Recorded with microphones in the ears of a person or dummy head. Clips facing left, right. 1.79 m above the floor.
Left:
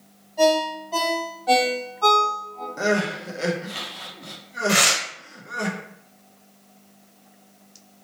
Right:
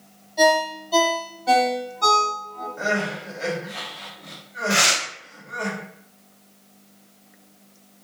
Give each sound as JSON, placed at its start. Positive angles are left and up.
{"t": 0.4, "sound": "a ringtone", "side_deg": -30, "distance_m": 1.5}
{"t": 2.8, "sound": "crying", "side_deg": 55, "distance_m": 0.7}
{"t": 4.7, "sound": "tearing paper", "side_deg": 50, "distance_m": 0.7}